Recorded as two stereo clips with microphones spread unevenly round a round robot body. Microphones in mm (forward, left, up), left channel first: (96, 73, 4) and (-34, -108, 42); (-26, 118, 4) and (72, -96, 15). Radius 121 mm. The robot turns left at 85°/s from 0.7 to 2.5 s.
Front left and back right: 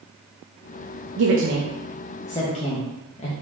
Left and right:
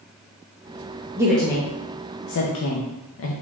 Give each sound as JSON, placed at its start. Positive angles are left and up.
{"t": 1.2, "sound": "a woman speaking", "azimuth_deg": -140, "distance_m": 0.6}